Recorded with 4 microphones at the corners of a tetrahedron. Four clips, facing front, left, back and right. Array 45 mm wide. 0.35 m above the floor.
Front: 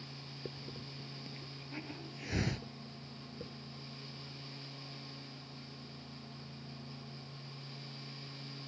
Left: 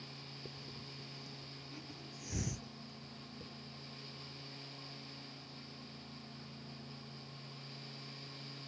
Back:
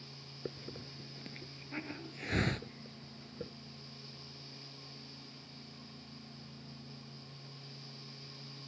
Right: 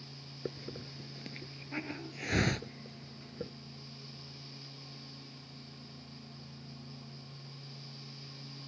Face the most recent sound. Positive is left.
turn(degrees=-115)